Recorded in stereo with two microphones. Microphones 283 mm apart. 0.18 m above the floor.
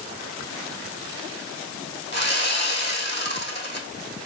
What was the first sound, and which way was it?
Sawing, 40° left (ahead or behind).